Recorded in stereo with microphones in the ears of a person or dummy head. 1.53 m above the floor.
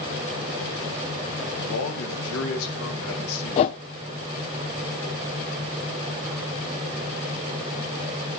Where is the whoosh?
30° left (ahead or behind), 0.5 m.